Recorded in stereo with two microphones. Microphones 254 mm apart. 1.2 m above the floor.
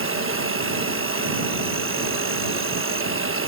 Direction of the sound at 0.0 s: 60° right (ahead or behind).